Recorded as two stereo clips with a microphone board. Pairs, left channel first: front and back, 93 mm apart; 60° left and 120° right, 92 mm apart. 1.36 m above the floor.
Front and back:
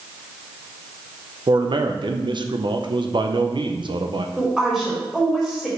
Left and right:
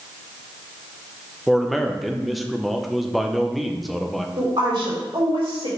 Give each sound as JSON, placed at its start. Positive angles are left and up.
{"t": 1.5, "sound": "a man speaking", "azimuth_deg": 150, "distance_m": 0.6}
{"t": 4.4, "sound": "a woman speaking", "azimuth_deg": -100, "distance_m": 3.0}